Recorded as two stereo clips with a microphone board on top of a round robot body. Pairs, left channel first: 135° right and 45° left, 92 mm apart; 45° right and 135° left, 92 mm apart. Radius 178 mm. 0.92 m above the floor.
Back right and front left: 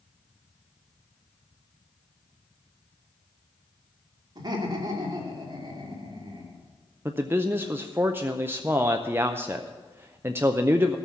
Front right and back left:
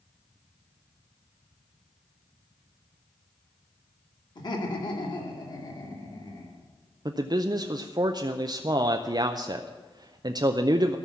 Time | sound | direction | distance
4.3 | laughter | straight ahead | 3 m
7.0 | a man speaking | 105° left | 0.8 m